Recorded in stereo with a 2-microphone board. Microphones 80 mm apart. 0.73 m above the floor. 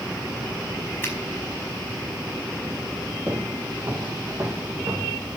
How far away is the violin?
No violin in this recording.